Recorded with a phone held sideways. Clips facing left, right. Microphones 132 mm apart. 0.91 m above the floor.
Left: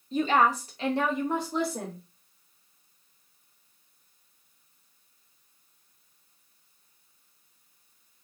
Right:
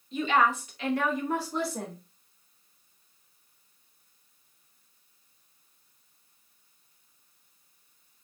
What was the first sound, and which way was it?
A woman speaking, 40° left (ahead or behind).